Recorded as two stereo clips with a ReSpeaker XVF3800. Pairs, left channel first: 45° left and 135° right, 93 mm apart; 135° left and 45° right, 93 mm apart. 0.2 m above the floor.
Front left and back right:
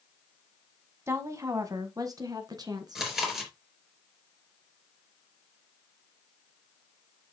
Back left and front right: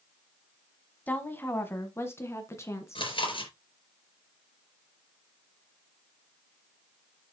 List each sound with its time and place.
1.1 s a woman speaking: 170° right, 1.4 m
3.0 s chewing: 135° left, 3.5 m